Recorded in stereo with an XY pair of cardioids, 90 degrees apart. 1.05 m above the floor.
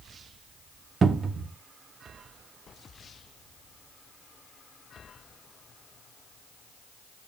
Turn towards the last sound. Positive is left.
turn(degrees=-45)